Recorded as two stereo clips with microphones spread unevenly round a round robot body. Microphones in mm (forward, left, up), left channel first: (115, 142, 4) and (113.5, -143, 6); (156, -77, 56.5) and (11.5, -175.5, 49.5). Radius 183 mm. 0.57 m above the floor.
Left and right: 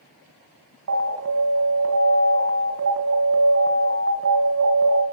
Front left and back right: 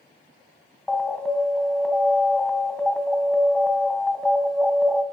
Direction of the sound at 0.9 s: 50° right.